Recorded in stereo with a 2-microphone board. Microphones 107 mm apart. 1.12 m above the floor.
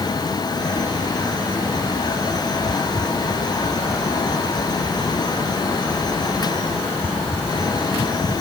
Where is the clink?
No clink in this recording.